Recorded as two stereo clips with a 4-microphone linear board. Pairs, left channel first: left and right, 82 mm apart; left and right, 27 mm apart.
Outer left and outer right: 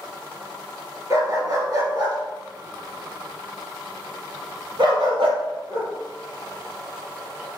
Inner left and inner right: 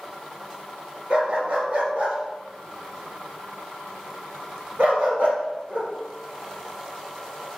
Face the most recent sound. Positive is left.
turn(degrees=-85)